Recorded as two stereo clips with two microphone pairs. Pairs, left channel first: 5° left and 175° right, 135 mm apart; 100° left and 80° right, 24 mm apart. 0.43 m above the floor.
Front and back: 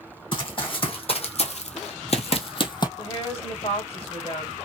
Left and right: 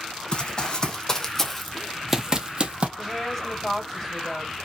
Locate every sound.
0.3 s running footsteps: 50° left, 1.2 m; by 2.9 s 50° right, 0.7 m
3.0 s a woman speaking: 20° left, 1.8 m